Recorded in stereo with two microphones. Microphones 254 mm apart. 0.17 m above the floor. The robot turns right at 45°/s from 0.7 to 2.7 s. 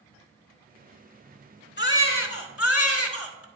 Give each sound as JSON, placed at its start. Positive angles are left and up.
{"t": 1.8, "sound": "a baby crying", "azimuth_deg": 50, "distance_m": 0.8}